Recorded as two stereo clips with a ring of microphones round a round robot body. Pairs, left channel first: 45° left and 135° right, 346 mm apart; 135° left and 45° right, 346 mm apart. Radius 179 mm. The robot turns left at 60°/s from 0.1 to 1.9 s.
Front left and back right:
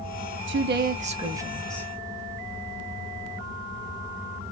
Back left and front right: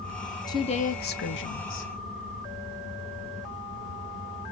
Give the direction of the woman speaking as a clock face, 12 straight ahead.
5 o'clock.